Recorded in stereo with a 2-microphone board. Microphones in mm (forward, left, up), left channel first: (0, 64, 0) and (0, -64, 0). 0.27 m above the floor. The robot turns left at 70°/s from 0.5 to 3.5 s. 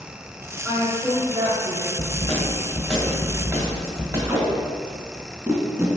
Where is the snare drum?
55° left, 1.7 m; by 4.2 s 50° right, 1.7 m.